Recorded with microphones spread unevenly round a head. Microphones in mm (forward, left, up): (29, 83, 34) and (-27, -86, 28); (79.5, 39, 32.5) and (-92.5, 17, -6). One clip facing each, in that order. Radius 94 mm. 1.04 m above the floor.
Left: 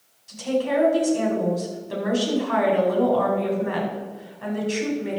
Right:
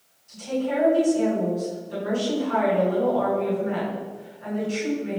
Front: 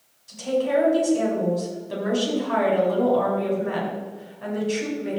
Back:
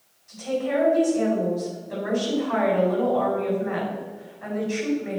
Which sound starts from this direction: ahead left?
A woman speaking, at 0.3 s.